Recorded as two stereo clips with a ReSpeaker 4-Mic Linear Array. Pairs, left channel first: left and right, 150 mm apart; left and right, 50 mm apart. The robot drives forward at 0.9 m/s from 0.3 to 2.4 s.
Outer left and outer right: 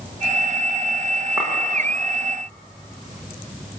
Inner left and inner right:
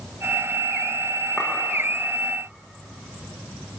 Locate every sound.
1.4 s a clink: 5° right (ahead or behind), 9.5 m